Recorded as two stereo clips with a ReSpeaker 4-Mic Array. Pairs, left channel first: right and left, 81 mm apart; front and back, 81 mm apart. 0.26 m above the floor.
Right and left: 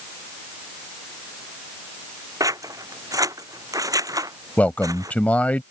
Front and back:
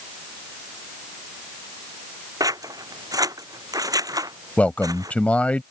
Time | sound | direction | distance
2.4 | scissors | 135° left | ?
4.6 | a man speaking | 45° right | ?